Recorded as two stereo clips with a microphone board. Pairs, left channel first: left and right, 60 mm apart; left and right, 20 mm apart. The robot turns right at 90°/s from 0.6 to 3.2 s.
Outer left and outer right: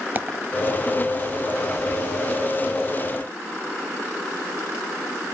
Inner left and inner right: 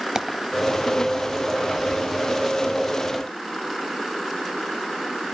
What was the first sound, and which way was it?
A dropped coin, 35° right (ahead or behind).